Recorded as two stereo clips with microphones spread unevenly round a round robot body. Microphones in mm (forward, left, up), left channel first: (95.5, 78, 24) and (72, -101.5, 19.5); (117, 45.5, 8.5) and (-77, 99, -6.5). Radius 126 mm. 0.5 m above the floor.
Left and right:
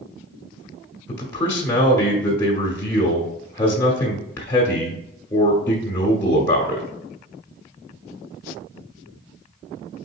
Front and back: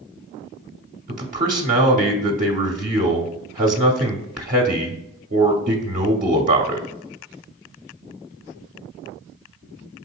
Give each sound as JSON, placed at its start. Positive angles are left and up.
{"t": 1.1, "sound": "a man speaking", "azimuth_deg": 160, "distance_m": 0.9}